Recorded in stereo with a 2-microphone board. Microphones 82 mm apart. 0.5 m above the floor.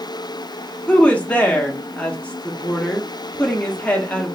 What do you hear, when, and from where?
0.9 s a woman speaking: 15° left (ahead or behind), 1.3 m